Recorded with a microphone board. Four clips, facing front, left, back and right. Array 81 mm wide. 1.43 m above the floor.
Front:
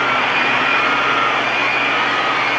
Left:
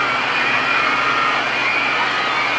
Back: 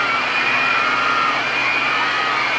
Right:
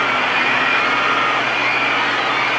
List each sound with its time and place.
Only background noise.